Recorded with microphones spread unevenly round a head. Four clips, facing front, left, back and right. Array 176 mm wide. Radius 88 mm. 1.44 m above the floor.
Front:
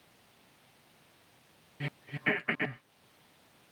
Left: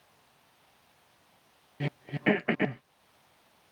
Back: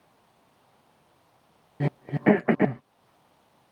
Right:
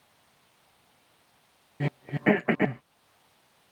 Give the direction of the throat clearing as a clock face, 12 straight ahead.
6 o'clock.